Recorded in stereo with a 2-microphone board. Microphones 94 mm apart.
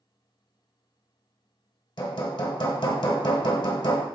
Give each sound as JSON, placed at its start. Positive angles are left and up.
{"t": 2.0, "sound": "hammering", "side_deg": 60, "distance_m": 1.3}